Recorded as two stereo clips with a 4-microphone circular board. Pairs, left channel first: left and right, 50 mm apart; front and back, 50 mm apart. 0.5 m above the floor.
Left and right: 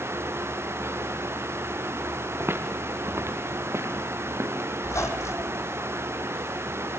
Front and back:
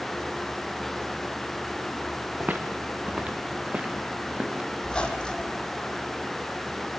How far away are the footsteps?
About 1.8 m.